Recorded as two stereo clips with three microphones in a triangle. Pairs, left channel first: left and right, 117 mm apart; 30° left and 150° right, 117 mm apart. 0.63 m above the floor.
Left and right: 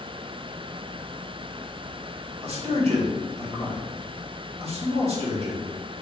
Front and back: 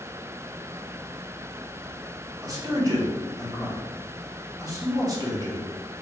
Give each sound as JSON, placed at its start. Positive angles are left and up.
{"t": 2.4, "sound": "a man speaking", "azimuth_deg": -95, "distance_m": 1.1}